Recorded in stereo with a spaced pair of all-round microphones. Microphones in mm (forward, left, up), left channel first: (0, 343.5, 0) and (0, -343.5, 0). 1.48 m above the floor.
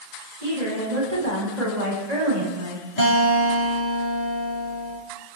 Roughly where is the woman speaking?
Right.